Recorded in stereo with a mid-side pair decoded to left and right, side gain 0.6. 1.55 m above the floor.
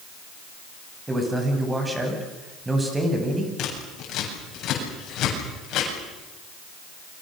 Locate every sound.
1.1 s a man speaking: 15° right, 8.5 m
3.6 s scissors: 55° left, 8 m